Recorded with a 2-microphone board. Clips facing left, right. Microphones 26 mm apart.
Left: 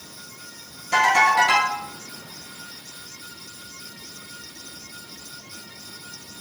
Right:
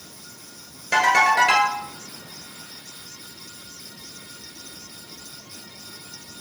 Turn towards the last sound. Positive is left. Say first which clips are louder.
# even
turn(degrees=-45)  # may be behind; listen again after turning